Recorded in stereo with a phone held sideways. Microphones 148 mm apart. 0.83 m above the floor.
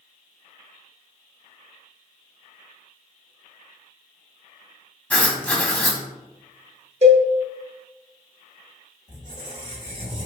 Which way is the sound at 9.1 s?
45° right (ahead or behind).